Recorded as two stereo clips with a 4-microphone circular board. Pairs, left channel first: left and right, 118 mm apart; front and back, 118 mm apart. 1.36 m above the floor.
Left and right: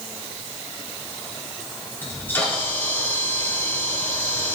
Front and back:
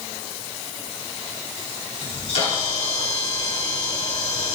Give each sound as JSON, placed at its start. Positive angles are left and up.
{"t": 2.0, "sound": "a camera shutter", "azimuth_deg": 15, "distance_m": 4.5}